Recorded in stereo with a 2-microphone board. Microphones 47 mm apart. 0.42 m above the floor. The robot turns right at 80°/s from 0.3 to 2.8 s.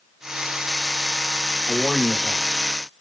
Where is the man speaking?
20° left (ahead or behind), 1.5 m; by 2.5 s 10° right (ahead or behind), 1.5 m.